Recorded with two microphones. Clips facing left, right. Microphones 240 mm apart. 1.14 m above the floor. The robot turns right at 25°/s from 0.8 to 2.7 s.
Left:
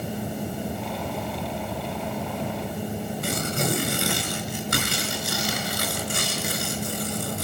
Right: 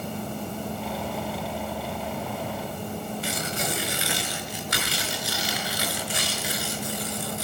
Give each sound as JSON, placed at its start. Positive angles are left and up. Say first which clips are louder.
{"t": 3.2, "sound": "tearing paper", "louder": "left 4 dB", "side_deg": 50, "distance_m": 4.5}